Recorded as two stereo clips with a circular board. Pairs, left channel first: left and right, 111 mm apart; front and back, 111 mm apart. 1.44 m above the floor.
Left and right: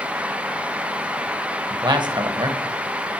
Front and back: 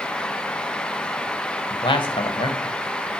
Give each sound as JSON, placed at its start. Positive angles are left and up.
{"t": 1.7, "sound": "a man speaking", "azimuth_deg": -40, "distance_m": 1.2}